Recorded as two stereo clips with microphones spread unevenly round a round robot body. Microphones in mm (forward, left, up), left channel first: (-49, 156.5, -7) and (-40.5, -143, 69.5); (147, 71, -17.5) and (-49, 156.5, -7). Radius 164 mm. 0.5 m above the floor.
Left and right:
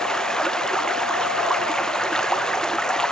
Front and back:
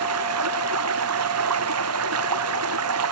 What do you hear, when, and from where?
0.0 s running water: straight behind